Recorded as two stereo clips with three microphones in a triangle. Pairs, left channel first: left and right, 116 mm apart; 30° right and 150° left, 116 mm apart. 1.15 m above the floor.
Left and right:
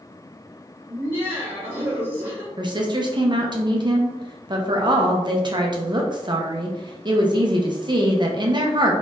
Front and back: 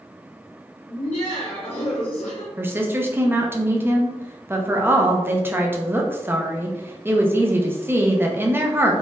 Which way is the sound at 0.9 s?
30° right.